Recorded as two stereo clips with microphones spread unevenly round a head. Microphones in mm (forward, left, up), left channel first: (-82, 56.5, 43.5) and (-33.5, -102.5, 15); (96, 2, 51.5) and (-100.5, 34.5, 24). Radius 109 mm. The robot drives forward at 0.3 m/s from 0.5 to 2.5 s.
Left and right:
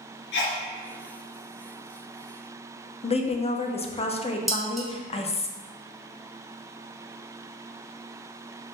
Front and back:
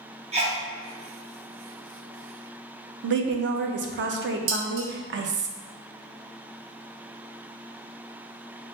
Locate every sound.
0.3 s a sneeze: 115° left, 0.9 m
3.0 s a woman speaking: 165° left, 0.6 m
4.5 s dishes clattering: 160° right, 0.9 m